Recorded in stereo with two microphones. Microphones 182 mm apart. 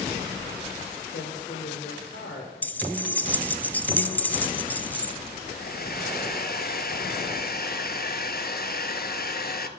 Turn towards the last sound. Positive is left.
turn(degrees=55)  # may be behind; listen again after turning